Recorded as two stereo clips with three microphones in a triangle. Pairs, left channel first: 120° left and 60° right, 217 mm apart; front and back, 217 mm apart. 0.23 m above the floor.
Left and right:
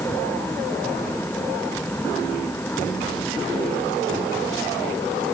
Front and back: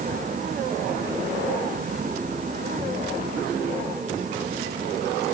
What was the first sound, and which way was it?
Only background noise.